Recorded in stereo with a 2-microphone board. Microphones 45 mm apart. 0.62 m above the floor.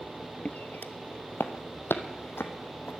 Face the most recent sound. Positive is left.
turn(degrees=70)  # may be behind; listen again after turning